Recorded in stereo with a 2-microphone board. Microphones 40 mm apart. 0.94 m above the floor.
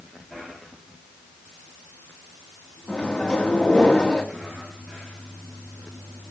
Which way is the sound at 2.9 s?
20° left (ahead or behind).